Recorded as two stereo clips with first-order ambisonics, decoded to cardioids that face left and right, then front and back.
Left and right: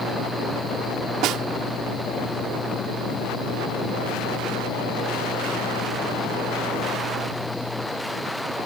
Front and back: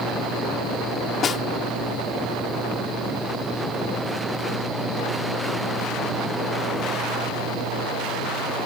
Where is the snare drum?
60° right.